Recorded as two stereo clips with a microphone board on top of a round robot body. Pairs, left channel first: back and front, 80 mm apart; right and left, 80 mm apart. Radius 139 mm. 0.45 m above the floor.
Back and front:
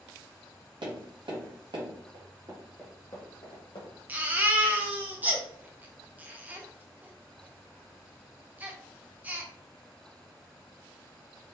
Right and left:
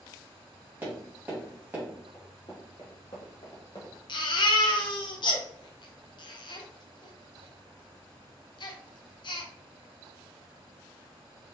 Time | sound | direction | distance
0.8 | tapping | 20° left | 1.0 m
2.1 | running footsteps | 20° right | 0.6 m
4.1 | a baby crying | 70° right | 0.6 m